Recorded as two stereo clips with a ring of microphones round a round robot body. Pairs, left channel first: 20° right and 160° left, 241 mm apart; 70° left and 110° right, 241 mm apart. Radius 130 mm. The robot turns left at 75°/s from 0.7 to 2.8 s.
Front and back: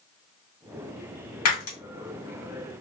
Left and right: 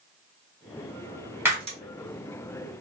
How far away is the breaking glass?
About 1.6 m.